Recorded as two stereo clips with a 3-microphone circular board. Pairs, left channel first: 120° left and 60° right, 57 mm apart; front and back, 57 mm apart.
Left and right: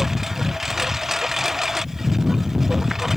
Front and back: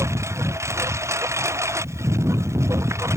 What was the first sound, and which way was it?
A lawn mower, 145° right.